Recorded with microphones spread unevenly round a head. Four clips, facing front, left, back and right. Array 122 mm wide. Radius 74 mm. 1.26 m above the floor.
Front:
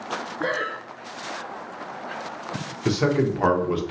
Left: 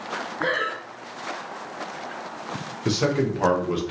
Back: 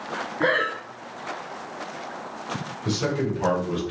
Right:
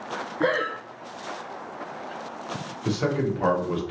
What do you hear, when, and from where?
0.4 s breathing: 130° right, 0.5 m
2.9 s a man speaking: 50° left, 1.4 m